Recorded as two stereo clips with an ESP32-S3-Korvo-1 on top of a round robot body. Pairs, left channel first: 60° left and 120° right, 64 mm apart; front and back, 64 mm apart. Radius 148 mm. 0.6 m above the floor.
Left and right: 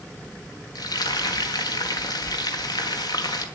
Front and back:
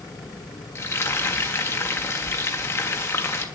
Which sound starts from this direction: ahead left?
Frying, at 0.8 s.